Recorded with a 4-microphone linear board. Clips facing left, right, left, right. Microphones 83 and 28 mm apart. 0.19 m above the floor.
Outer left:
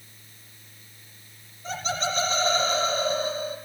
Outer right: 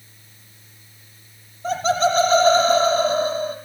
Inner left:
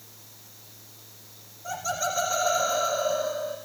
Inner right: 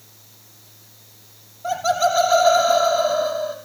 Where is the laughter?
75° right (ahead or behind), 7 m.